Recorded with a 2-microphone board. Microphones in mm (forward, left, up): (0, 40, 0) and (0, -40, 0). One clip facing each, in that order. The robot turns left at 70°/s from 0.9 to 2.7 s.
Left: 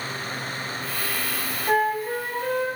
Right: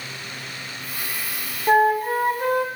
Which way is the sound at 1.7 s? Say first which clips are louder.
Right 5 dB; 40° right.